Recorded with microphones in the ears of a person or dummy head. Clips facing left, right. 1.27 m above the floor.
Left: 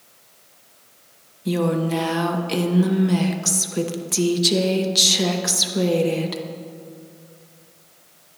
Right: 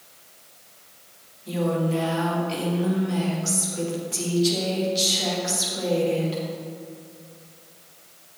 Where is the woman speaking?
65° left (ahead or behind), 1.0 m.